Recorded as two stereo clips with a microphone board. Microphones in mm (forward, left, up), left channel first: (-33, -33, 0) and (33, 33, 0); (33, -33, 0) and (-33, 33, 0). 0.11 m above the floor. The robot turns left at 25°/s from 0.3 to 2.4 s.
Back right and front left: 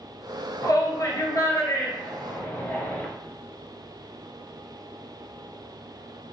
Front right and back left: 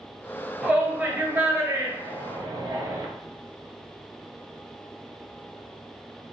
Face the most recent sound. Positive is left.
turn(degrees=170)